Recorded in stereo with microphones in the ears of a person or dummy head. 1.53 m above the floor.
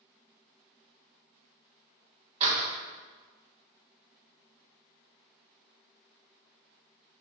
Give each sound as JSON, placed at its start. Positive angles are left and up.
{"t": 2.4, "sound": "a door slam", "side_deg": -35, "distance_m": 1.7}